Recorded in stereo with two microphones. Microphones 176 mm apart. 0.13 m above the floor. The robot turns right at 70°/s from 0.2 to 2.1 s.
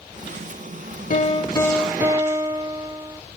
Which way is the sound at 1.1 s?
125° left.